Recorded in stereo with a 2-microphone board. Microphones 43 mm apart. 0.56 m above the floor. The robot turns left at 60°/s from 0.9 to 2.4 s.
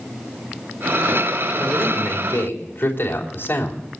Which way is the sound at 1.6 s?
175° left.